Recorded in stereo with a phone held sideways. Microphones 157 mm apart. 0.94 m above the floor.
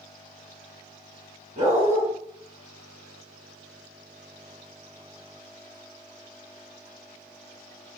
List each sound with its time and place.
1.6 s a dog barking: 50° right (ahead or behind), 4.5 m